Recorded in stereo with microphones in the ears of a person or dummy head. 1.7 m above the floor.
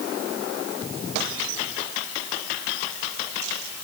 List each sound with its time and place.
Only background noise.